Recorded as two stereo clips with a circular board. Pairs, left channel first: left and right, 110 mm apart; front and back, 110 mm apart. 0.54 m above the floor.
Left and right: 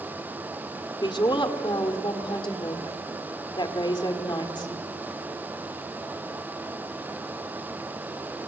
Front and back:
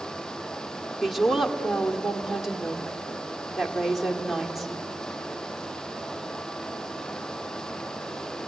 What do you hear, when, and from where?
1.0 s a woman speaking: 90° left, 1.7 m